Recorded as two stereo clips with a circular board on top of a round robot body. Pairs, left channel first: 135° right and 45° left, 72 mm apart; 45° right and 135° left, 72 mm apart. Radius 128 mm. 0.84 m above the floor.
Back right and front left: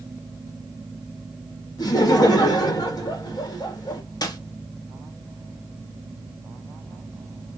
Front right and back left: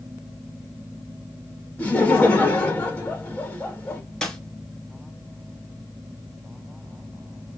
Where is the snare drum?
125° right, 1.5 m.